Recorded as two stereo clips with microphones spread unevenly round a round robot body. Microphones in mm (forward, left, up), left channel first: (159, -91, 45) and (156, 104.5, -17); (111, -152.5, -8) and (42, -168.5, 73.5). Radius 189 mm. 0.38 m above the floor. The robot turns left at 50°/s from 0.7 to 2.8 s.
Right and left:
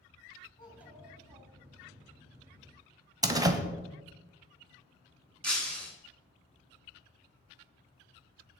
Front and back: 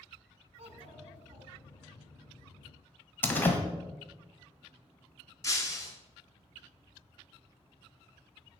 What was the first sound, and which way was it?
A child speaking, 170° right.